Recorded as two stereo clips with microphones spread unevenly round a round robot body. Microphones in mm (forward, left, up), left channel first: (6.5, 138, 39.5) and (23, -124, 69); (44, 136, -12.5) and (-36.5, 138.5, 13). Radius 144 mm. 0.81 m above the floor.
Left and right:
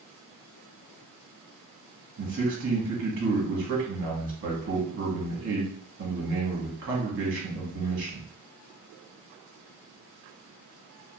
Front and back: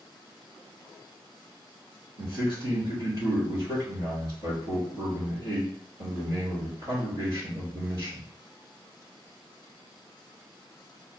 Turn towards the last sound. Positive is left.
turn(degrees=-125)